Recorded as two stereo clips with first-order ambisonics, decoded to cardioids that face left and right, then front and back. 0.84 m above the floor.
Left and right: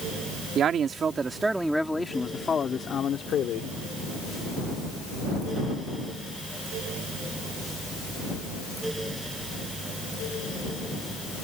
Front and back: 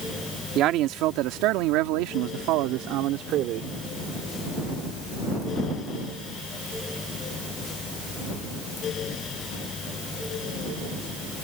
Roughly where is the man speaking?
Behind right.